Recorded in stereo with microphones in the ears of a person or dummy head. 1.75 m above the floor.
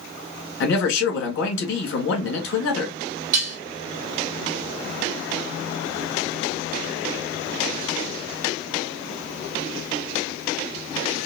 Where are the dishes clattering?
50° right (ahead or behind), 1.5 m.